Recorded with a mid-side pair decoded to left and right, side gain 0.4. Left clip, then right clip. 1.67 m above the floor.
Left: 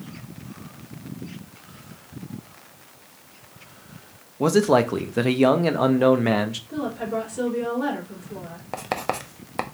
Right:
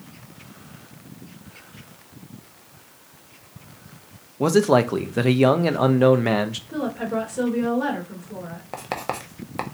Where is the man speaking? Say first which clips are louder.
Right 1 dB; 5° right, 0.6 m.